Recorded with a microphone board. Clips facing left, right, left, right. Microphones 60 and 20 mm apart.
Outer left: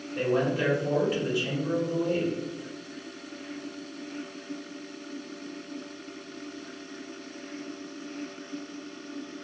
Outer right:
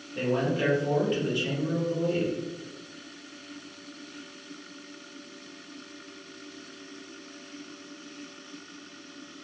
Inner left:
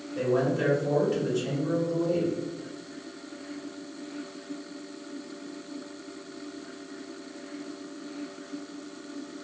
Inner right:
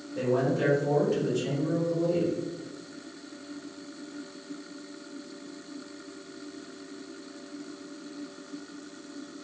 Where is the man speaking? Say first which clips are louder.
Outer left 1 dB, inner left 1 dB; 5° left (ahead or behind), 1.0 m.